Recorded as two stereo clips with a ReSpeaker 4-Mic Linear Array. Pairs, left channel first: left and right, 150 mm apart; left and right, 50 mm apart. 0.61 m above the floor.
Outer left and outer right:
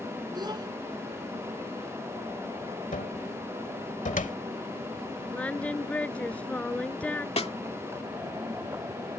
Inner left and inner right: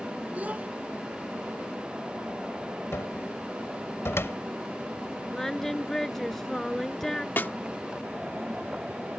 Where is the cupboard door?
55° left (ahead or behind).